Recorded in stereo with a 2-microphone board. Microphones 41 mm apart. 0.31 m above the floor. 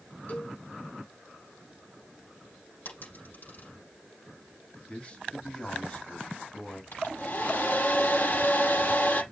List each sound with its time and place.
0.3 s a cowbell: 45° left (ahead or behind), 4 m
2.9 s a dropped coin: 55° left (ahead or behind), 6.5 m
4.9 s a man speaking: 30° left (ahead or behind), 2.5 m
6.9 s a hair dryer: 50° left (ahead or behind), 6.5 m